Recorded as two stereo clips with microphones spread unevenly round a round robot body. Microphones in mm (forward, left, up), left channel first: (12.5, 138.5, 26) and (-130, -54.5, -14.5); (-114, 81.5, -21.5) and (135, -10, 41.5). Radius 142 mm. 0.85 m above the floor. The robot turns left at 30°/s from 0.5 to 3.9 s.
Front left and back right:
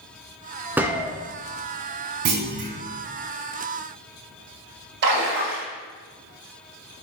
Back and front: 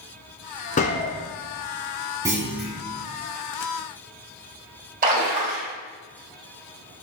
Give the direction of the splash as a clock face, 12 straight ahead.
2 o'clock.